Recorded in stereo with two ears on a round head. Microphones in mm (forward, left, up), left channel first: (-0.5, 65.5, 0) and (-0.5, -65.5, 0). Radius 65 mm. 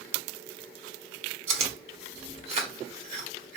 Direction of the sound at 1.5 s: 45° right (ahead or behind).